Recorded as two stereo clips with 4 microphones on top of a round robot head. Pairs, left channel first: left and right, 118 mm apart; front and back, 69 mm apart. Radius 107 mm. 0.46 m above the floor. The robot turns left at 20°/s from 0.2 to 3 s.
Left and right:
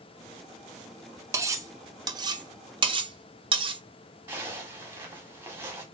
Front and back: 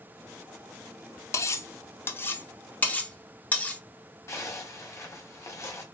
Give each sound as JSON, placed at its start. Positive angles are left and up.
{"t": 1.3, "sound": "cutlery clinking", "azimuth_deg": -30, "distance_m": 0.7}
{"t": 4.3, "sound": "a zipper", "azimuth_deg": -25, "distance_m": 1.5}